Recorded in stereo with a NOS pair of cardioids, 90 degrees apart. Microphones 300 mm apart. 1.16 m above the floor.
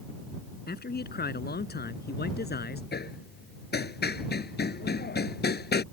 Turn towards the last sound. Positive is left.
turn(degrees=35)